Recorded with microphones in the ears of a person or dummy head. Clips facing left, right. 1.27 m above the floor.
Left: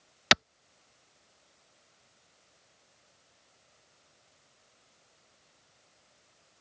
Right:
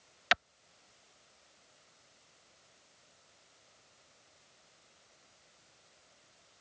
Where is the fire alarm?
I don't hear a fire alarm.